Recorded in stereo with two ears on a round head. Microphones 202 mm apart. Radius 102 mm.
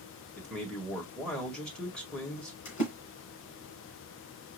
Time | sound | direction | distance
0.4 | a man speaking | 5° left (ahead or behind) | 1.6 m
2.6 | a splash | 55° left (ahead or behind) | 3 m